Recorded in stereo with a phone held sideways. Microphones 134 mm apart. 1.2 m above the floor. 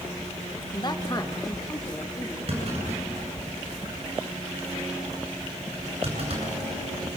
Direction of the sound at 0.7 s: 35° left (ahead or behind).